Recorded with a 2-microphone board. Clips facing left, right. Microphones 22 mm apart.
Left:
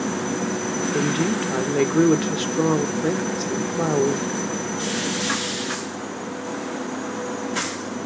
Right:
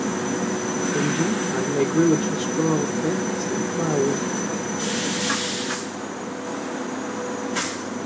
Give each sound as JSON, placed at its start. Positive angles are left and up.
{"t": 0.9, "sound": "a woman speaking", "side_deg": 55, "distance_m": 1.8}